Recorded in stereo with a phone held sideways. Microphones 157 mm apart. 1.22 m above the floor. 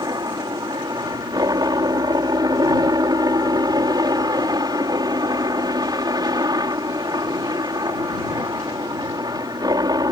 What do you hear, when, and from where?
0.0 s a helicopter: 25° right (ahead or behind)